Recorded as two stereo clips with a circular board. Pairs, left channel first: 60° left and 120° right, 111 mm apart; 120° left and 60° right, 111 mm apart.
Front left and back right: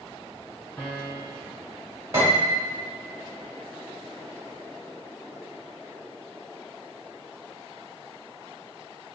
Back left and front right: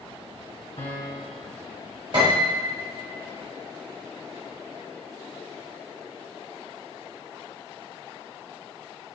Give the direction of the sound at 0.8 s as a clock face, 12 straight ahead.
8 o'clock.